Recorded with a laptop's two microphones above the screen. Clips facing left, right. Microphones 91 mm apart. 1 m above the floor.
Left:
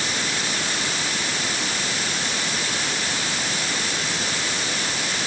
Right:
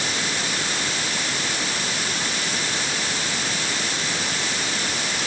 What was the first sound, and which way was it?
Only background noise.